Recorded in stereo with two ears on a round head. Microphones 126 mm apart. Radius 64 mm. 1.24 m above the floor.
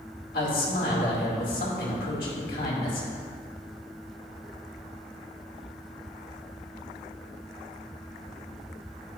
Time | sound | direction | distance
0.3 | a man speaking | 80° left | 2.5 m